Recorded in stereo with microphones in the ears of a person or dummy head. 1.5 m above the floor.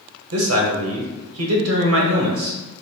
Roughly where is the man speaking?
Right.